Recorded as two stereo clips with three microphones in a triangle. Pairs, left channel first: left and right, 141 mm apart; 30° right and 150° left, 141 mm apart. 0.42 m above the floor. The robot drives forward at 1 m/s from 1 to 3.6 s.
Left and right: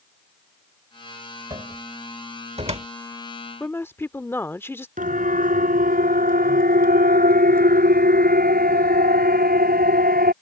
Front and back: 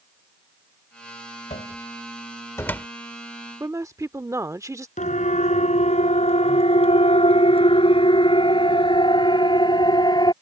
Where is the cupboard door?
40° right; by 2.9 s 110° right.